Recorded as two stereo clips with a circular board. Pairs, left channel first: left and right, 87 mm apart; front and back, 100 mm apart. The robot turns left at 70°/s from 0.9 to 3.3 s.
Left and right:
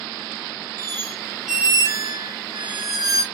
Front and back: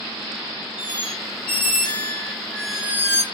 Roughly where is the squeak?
Ahead left.